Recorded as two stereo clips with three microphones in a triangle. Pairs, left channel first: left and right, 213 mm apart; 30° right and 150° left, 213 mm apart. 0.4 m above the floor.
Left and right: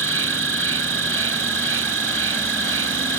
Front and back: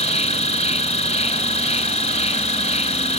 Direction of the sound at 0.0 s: 90° right.